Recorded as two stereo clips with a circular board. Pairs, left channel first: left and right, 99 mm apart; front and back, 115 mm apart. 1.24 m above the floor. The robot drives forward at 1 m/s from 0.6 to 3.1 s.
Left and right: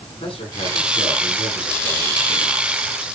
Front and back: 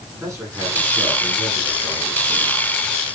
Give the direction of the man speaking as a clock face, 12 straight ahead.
8 o'clock.